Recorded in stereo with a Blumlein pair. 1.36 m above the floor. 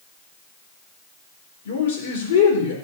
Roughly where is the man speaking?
Ahead left.